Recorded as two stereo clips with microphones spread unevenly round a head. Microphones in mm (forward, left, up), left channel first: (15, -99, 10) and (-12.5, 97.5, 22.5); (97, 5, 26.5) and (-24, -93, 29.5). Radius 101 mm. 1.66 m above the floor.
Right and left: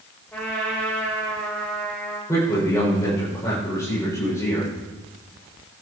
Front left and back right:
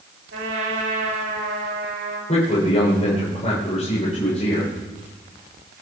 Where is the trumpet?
165° right, 7.5 m.